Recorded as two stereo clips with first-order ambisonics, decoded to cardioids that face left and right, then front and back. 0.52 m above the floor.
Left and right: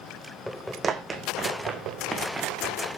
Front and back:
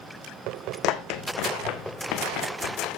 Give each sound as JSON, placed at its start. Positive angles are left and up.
{"t": 0.8, "sound": "running footsteps", "azimuth_deg": -20, "distance_m": 1.2}